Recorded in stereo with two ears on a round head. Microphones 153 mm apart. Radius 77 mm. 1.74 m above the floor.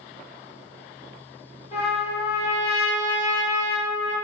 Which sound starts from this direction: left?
A trumpet, at 1.7 s.